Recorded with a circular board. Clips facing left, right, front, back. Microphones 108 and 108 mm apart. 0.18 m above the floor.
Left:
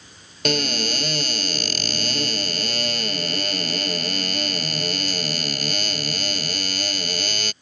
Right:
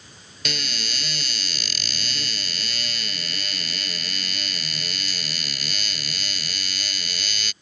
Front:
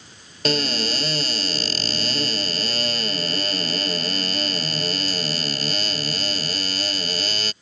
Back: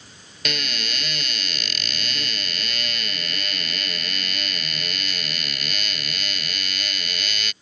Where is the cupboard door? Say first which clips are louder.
Left 10 dB, front 8 dB; 55° left.